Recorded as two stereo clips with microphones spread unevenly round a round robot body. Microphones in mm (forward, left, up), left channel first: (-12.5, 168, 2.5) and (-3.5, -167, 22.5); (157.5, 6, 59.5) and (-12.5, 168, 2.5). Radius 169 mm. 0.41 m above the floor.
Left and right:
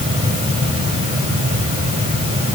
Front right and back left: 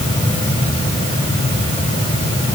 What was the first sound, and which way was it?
Only background noise.